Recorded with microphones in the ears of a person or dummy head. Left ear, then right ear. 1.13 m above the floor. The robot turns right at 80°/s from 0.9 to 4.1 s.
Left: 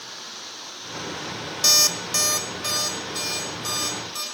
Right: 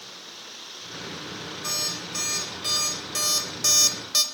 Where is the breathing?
I don't hear breathing.